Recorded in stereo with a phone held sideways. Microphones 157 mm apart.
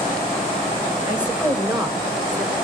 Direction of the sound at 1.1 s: 30° right (ahead or behind).